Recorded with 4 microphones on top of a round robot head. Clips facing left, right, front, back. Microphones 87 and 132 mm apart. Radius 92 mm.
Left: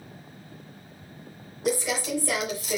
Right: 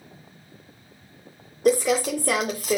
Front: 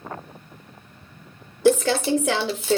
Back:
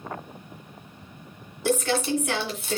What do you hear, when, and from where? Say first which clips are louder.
1.6 s crumpling: right 7 dB, front 6 dB; 25° right, 0.6 m